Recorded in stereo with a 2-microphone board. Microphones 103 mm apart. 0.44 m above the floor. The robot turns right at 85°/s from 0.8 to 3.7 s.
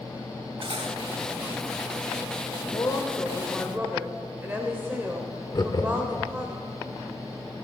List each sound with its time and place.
0.6 s cutlery clinking: 60° right (ahead or behind), 1.1 m; by 1.0 s 45° right (ahead or behind), 1.1 m
2.7 s a woman speaking: 120° left, 1.4 m; by 6.5 s 155° right, 1.4 m
5.5 s laughter: 40° left (ahead or behind), 0.9 m